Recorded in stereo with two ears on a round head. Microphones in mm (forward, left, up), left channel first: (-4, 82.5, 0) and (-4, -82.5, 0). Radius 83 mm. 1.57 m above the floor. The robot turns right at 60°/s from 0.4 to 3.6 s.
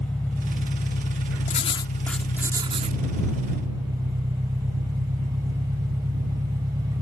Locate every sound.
0.0 s an engine running: 10° left; by 7.0 s 160° right
1.5 s writing: 135° left; by 3.0 s 135° right